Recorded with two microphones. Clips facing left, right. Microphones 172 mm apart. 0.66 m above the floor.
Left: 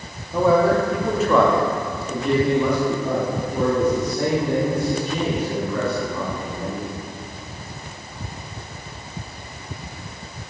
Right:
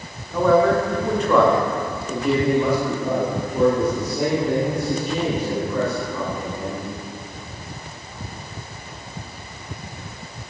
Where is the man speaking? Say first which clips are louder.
Even; 10° left (ahead or behind), 1.0 m; by 6.8 s 15° right (ahead or behind), 3 m.